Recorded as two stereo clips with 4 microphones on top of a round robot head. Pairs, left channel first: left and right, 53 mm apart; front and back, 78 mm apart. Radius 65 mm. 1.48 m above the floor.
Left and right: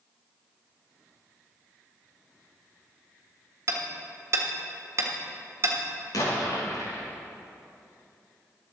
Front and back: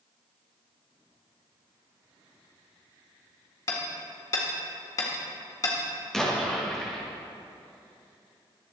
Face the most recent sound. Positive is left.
turn(degrees=85)